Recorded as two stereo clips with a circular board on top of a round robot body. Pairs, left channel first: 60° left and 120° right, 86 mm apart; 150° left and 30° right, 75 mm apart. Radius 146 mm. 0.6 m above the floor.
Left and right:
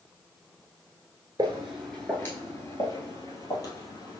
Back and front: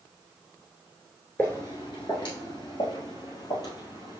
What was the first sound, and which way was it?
Footsteps, 155° right.